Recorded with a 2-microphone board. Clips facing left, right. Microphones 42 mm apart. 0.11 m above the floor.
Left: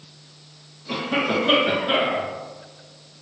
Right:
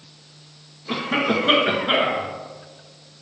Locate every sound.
0.9 s a cough: 35° right (ahead or behind), 1.6 m